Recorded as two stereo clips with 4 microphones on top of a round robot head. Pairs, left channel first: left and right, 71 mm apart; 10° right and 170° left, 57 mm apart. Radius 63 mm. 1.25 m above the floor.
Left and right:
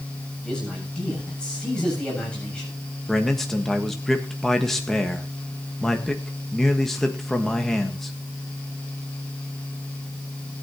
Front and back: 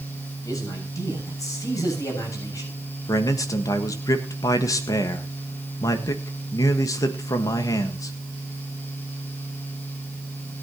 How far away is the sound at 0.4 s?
About 7 m.